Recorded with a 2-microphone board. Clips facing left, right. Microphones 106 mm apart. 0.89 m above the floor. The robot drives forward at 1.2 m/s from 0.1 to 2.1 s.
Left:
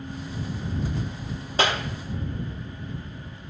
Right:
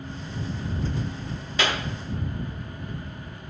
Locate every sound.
1.6 s a clap: 35° left (ahead or behind), 1.7 m; by 1.8 s 30° left (ahead or behind), 1.9 m